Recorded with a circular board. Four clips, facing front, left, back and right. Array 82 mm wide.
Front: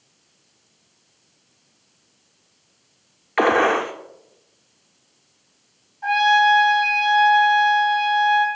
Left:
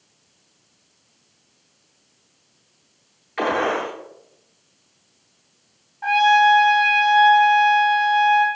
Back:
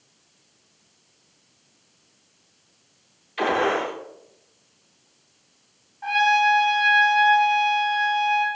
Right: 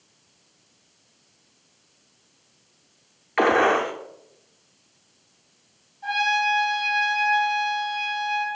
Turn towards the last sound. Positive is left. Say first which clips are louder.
# left 9 dB, front 3 dB
turn(degrees=95)